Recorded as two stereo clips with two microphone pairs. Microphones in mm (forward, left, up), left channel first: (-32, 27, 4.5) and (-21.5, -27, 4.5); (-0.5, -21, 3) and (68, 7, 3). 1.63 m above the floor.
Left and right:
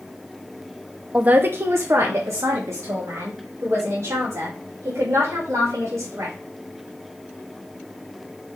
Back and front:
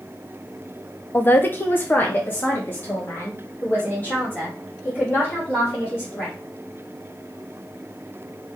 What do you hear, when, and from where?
1.1 s a man speaking: 120° right, 0.5 m; by 6.3 s 90° right, 4 m